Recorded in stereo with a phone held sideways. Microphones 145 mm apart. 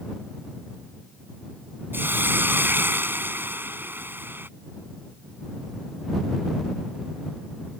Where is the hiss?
15° right (ahead or behind).